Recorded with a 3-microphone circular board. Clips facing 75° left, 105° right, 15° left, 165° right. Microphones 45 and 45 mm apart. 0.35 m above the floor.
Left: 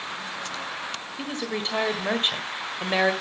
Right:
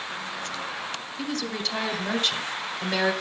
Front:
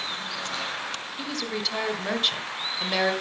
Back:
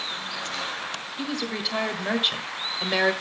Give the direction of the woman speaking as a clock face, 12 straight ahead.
8 o'clock.